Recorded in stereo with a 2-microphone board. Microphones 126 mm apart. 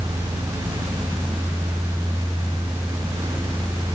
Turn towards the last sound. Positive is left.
No sound to turn to.